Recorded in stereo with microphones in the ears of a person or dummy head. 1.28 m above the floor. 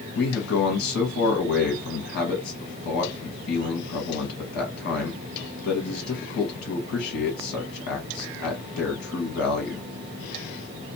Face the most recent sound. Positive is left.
turn(degrees=70)  # may be behind; listen again after turning